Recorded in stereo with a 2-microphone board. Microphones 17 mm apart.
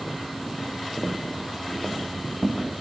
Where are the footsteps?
35° left (ahead or behind), 1.6 m; by 2.7 s 5° left (ahead or behind), 2.5 m.